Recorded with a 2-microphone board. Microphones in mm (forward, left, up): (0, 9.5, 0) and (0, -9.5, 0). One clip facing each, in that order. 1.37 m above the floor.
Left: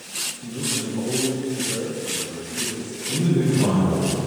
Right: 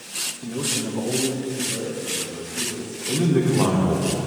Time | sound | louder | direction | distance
0.4 | a man speaking | right 2 dB | 55° right (ahead or behind) | 1.1 m
3.1 | a man speaking | right 1 dB | 65° right (ahead or behind) | 1.4 m